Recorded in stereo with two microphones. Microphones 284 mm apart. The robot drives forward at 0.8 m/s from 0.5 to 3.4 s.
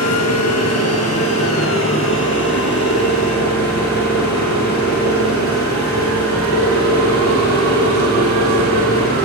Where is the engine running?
65° left (ahead or behind), 2.5 m; by 9.3 s 35° left (ahead or behind), 4 m.